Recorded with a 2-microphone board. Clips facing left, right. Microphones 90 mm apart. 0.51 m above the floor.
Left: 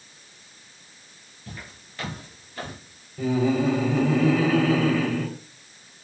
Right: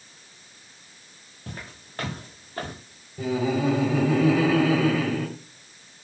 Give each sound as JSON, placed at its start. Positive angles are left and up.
{"t": 1.5, "sound": "footsteps", "side_deg": -50, "distance_m": 4.0}
{"t": 3.2, "sound": "laughter", "side_deg": -5, "distance_m": 3.0}